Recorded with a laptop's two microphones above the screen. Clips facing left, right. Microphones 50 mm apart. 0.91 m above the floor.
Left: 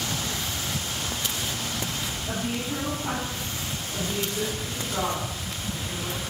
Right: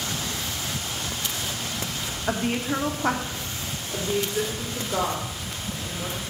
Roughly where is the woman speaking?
Right.